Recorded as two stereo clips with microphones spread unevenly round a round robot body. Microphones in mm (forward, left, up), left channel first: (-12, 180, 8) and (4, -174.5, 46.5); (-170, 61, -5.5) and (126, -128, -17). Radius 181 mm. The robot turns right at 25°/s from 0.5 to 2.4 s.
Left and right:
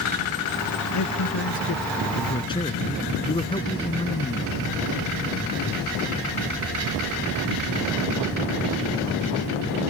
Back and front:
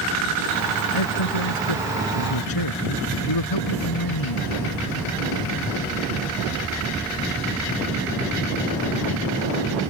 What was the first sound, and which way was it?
A man speaking, 135° left.